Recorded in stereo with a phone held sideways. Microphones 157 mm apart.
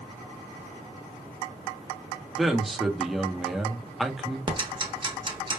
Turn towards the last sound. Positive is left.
turn(degrees=-30)  # may be behind; listen again after turning